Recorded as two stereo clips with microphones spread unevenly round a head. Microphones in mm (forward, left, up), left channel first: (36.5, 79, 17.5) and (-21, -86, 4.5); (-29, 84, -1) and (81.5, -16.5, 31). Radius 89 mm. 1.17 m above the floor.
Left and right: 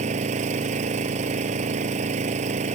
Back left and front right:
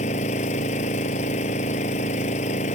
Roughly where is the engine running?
Behind.